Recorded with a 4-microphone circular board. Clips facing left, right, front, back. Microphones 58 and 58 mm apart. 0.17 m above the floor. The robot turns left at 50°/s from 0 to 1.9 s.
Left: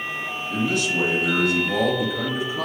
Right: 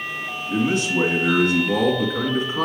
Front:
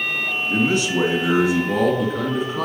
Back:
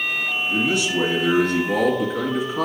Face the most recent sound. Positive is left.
turn(degrees=-95)